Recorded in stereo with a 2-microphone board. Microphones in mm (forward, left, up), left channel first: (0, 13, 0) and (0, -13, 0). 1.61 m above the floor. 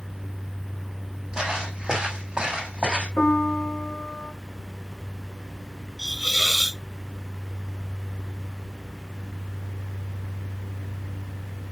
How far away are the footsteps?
About 4.5 m.